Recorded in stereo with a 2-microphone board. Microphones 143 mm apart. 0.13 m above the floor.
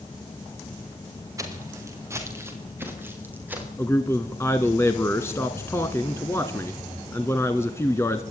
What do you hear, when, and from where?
1.4 s footsteps: 25° right (ahead or behind), 5.5 m; by 3.7 s 10° right (ahead or behind), 7 m
3.8 s a man speaking: 20° left (ahead or behind), 1.4 m